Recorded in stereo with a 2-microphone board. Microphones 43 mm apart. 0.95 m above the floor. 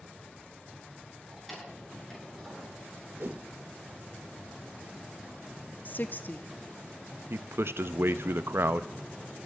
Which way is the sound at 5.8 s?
40° left (ahead or behind).